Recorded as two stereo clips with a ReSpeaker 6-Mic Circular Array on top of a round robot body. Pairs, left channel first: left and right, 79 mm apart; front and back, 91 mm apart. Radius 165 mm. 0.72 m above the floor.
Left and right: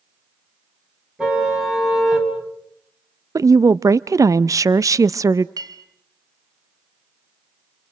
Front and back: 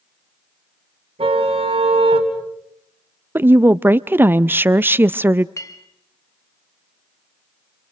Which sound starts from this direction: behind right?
A woman speaking, at 3.4 s.